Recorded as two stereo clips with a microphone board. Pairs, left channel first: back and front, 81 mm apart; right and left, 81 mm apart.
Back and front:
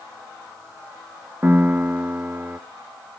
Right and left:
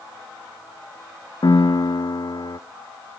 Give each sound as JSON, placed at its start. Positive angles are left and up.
{"t": 1.4, "sound": "a piano", "azimuth_deg": -65, "distance_m": 0.6}